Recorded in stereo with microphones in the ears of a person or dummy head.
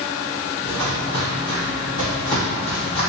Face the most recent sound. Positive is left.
turn(degrees=50)  # may be behind; listen again after turning